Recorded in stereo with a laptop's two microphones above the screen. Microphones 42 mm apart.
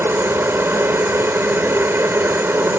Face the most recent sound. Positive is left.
turn(degrees=-60)  # may be behind; listen again after turning